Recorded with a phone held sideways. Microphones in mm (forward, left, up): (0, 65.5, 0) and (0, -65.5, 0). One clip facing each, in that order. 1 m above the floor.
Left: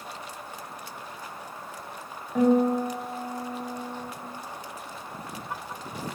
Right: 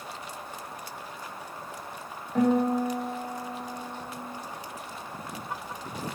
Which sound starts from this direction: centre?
A guitar, at 2.4 s.